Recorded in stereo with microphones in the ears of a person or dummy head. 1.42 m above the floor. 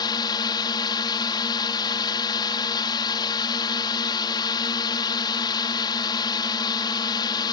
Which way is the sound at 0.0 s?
20° left (ahead or behind).